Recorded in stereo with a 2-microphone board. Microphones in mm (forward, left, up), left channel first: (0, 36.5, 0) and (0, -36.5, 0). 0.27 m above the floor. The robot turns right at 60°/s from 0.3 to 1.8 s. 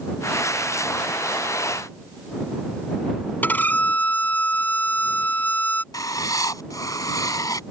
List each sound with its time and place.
3.4 s a violin: 25° left (ahead or behind)
5.9 s writing: 55° left (ahead or behind)